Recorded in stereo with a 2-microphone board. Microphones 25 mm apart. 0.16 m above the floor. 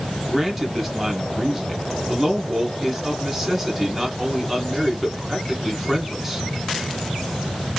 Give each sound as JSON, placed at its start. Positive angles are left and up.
{"t": 0.3, "sound": "a man speaking", "side_deg": -10, "distance_m": 2.0}